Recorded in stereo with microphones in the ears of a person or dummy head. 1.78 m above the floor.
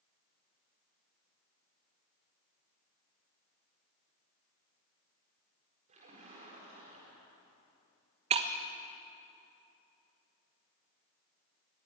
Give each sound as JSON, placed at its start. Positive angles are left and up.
{"t": 5.9, "sound": "a splash", "side_deg": -40, "distance_m": 4.5}
{"t": 8.3, "sound": "breaking glass", "side_deg": -35, "distance_m": 1.1}